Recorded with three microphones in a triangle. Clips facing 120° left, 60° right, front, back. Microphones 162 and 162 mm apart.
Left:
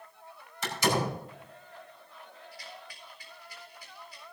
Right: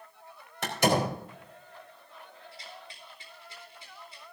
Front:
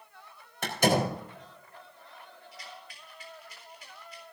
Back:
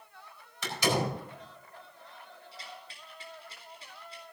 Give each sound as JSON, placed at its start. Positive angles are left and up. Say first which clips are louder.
{"t": 0.6, "sound": "a door slam", "louder": "right 3 dB, front 4 dB", "azimuth_deg": -35, "distance_m": 4.0}
{"t": 2.5, "sound": "a rattle", "louder": "even, even", "azimuth_deg": -120, "distance_m": 4.0}